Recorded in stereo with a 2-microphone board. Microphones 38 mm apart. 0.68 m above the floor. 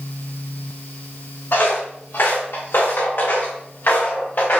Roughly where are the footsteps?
Left.